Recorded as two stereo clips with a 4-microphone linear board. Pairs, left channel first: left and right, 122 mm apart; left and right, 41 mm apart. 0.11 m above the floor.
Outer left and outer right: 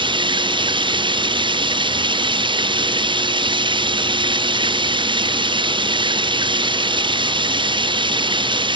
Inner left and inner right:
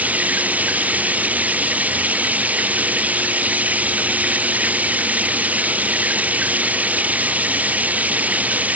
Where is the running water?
40° right (ahead or behind).